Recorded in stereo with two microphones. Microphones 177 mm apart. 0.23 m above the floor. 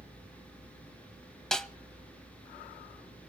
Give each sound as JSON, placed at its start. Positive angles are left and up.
{"t": 1.5, "sound": "a snare drum", "side_deg": 5, "distance_m": 1.0}